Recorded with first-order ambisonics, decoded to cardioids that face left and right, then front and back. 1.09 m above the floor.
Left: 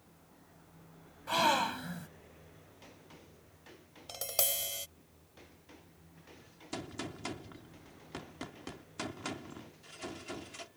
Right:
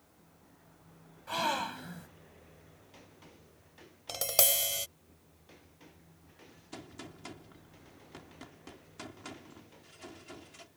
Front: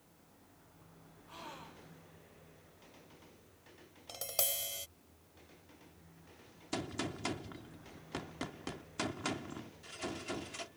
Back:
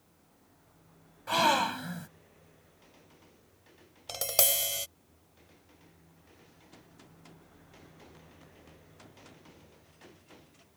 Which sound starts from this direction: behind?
A gasp, at 1.3 s.